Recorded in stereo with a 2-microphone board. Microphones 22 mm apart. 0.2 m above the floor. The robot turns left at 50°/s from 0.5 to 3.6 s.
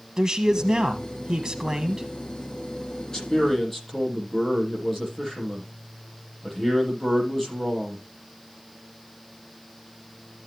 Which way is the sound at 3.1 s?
30° left (ahead or behind).